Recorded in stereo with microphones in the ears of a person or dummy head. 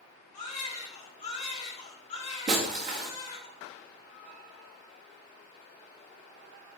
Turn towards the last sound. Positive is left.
turn(degrees=-40)  # may be behind; listen again after turning